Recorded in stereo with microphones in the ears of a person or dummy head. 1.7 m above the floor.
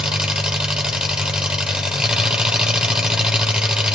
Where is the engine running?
10° right (ahead or behind), 0.8 m.